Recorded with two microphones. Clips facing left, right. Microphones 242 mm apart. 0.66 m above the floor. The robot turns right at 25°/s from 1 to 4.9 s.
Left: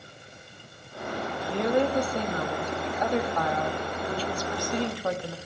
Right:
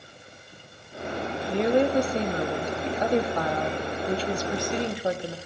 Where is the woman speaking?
20° right (ahead or behind), 0.8 m.